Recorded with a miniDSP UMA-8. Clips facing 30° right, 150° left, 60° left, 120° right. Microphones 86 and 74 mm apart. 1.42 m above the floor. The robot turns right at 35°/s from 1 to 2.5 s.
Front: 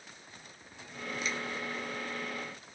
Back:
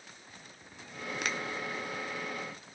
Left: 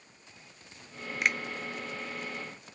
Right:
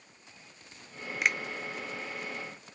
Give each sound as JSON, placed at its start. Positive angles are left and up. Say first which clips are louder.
{"t": 1.2, "sound": "a finger snap", "louder": "back 1 dB, even", "azimuth_deg": 150, "distance_m": 0.7}